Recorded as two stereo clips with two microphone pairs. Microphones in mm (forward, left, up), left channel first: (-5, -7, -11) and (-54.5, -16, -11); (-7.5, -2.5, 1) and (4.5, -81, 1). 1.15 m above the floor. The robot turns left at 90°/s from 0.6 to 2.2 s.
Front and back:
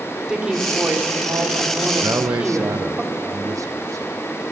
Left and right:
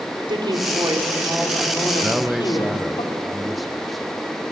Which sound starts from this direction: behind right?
A man speaking, at 2.0 s.